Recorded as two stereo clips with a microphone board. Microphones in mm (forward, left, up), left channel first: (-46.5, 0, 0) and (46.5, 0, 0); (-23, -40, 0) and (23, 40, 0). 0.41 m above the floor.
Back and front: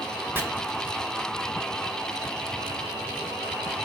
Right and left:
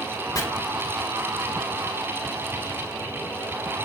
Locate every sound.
0.3 s chopping: 70° right, 0.8 m